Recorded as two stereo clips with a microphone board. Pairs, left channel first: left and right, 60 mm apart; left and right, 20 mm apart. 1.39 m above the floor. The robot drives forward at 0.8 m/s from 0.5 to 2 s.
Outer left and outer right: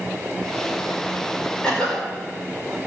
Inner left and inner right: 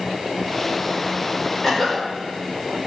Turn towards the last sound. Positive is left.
turn(degrees=10)  # may be behind; listen again after turning